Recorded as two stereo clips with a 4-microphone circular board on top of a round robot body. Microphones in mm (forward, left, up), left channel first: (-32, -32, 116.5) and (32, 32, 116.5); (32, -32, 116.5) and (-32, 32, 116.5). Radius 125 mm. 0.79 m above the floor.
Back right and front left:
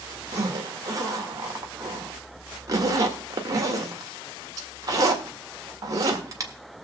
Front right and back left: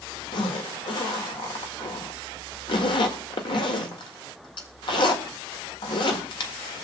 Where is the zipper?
10° right, 1.6 m.